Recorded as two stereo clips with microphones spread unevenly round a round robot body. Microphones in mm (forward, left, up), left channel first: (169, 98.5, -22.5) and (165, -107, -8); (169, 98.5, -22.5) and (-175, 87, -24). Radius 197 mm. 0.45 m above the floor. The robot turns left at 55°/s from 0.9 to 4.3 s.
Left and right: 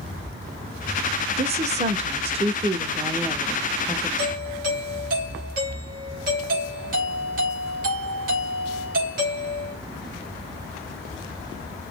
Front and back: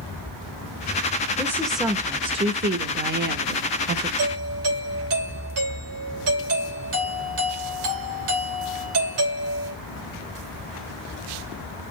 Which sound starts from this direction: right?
A woman speaking, at 1.4 s.